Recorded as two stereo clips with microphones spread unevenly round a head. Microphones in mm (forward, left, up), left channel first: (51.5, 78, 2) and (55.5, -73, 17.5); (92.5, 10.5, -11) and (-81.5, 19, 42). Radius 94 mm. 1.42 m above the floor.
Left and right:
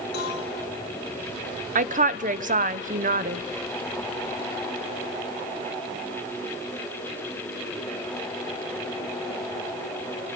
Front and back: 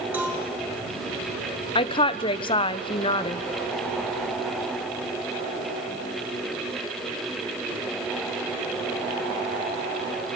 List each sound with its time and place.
0.1 s a cowbell: 100° left, 5.5 m
1.8 s a woman speaking: 60° right, 1.0 m